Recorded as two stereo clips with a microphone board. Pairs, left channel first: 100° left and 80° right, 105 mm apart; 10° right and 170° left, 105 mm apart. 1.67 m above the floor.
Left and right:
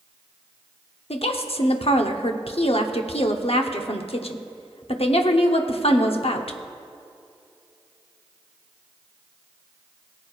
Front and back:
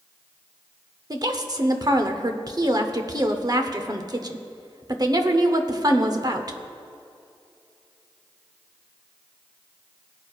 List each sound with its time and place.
1.1 s a woman speaking: 120° left, 0.8 m